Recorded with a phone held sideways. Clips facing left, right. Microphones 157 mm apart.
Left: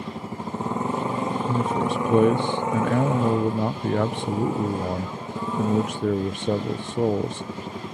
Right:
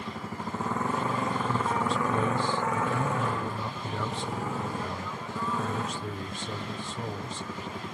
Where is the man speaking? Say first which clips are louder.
Left 6 dB; 70° left (ahead or behind).